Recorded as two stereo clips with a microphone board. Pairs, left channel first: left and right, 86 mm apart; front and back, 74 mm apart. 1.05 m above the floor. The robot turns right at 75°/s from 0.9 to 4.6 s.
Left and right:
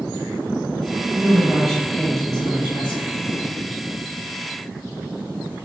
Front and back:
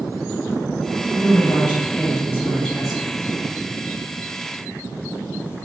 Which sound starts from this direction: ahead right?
A woman speaking, at 1.1 s.